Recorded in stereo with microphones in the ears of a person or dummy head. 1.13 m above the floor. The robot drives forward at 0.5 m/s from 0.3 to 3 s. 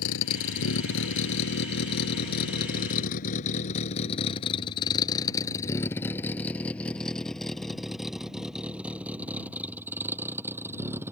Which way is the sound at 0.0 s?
80° left.